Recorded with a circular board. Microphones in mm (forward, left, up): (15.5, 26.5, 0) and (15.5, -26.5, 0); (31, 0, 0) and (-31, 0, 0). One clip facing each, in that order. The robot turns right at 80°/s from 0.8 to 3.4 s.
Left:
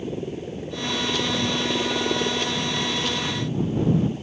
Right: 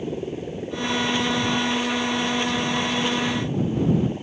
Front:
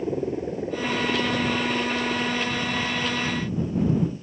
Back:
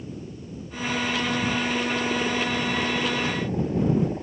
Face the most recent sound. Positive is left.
turn(degrees=-160)